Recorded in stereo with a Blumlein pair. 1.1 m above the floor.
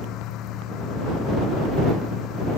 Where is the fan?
35° left.